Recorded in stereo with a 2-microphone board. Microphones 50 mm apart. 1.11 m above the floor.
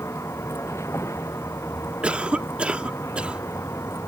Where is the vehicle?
70° left (ahead or behind).